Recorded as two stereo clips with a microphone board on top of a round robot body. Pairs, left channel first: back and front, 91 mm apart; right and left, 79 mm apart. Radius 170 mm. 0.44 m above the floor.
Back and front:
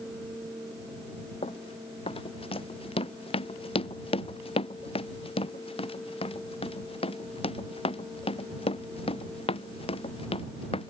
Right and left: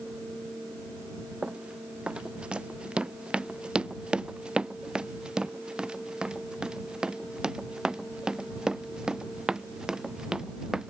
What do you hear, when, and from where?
1.4 s running footsteps: 165° left; by 10.9 s 170° left